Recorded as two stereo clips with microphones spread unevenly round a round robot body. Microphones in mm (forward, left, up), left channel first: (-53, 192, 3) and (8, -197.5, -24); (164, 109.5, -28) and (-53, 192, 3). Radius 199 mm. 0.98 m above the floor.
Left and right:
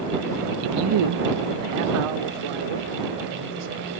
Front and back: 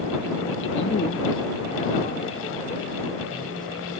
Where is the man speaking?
35° right; by 3.9 s 100° right.